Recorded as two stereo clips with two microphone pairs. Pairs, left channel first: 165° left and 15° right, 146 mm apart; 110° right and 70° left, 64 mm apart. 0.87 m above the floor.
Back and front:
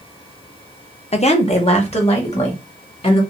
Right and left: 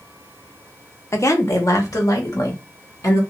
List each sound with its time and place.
1.1 s a woman speaking: 150° right, 0.8 m; by 3.2 s 145° right, 2 m